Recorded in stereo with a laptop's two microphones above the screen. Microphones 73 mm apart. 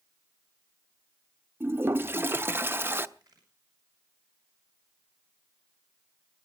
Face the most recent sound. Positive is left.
turn(degrees=-70)  # may be behind; listen again after turning